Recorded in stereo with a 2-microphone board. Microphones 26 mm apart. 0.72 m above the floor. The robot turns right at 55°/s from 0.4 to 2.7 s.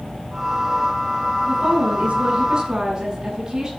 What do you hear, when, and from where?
1.5 s a woman speaking: 90° right, 9 m; by 3.7 s 25° right, 9 m